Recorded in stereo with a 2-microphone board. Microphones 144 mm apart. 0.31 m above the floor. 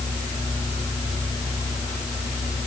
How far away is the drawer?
No drawer in this recording.